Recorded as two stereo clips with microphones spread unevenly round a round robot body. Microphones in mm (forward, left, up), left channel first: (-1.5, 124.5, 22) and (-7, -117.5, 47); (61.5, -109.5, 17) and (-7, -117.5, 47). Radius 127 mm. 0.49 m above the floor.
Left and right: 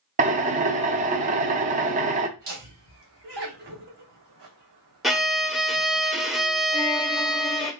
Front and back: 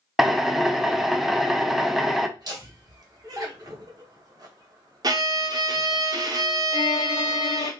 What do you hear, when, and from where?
0.2 s a drill: 45° right, 0.7 m
2.4 s laughter: 135° right, 2.5 m
5.0 s a violin: 170° left, 0.7 m
6.7 s a violin: 15° left, 0.5 m